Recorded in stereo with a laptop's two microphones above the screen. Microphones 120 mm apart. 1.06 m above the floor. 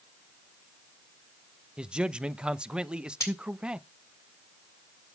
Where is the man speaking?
10° right (ahead or behind), 0.7 m.